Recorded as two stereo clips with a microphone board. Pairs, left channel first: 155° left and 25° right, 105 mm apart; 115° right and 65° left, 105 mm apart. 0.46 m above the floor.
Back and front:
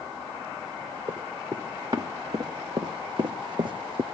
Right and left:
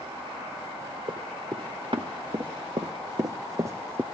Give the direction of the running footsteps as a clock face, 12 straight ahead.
11 o'clock.